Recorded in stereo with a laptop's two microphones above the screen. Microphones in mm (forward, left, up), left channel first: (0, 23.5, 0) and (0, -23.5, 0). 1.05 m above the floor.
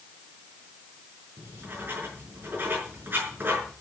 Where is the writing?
45° right (ahead or behind), 6 m.